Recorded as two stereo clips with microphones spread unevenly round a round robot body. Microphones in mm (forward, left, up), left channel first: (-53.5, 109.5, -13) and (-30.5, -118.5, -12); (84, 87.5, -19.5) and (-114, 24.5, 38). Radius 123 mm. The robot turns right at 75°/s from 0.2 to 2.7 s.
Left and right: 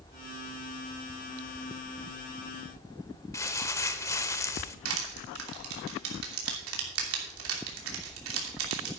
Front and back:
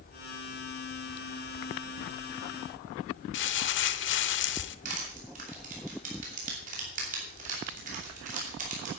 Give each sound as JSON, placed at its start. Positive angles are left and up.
{"t": 3.3, "sound": "crumpling", "azimuth_deg": 25, "distance_m": 0.7}
{"t": 4.8, "sound": "crushing", "azimuth_deg": -100, "distance_m": 3.0}